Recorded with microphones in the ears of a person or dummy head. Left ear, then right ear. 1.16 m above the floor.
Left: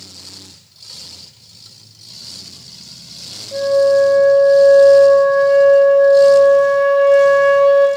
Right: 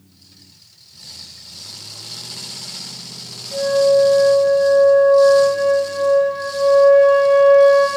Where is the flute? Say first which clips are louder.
Left 2 dB; 60° left (ahead or behind), 3 m.